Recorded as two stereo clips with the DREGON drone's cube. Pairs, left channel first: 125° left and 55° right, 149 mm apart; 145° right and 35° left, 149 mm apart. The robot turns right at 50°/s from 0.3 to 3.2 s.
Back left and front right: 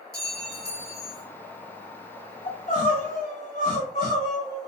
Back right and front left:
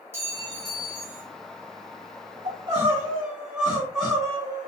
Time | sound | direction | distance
0.1 | a clink | 40° right | 1.0 m
2.5 | crying | 85° left | 1.5 m